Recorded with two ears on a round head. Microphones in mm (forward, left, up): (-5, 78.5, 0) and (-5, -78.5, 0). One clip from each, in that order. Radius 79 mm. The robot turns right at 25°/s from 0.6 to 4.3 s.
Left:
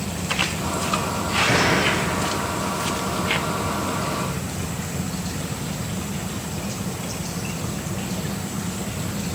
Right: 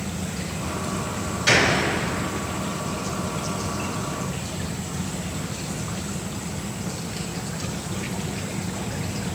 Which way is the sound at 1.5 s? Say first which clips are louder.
Right 3 dB; 70° right (ahead or behind).